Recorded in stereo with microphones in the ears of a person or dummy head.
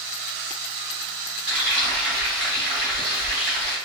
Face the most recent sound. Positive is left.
turn(degrees=-5)  # may be behind; listen again after turning